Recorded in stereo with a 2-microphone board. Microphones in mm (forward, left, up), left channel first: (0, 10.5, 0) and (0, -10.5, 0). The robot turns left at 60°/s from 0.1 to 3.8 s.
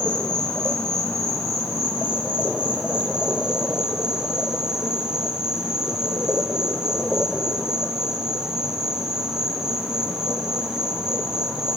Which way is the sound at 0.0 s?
75° left.